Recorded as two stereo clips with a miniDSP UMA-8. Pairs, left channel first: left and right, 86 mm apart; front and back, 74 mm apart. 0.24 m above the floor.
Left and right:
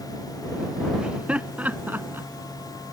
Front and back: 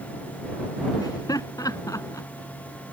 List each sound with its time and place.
1.0 s laughter: 15° right; by 2.3 s 30° right